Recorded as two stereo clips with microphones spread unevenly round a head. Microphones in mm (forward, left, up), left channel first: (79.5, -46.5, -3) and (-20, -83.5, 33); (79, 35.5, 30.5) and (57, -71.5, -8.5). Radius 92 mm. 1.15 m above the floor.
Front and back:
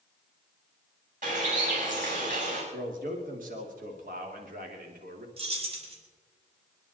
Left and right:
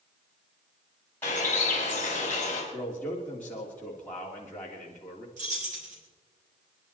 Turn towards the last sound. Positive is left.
turn(degrees=-130)